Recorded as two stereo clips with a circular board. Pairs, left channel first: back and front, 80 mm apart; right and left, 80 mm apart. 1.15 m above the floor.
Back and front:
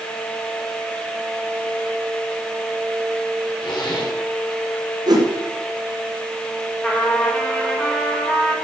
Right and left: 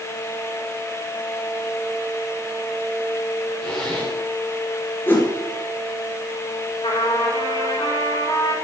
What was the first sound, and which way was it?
A zipper, 170° right.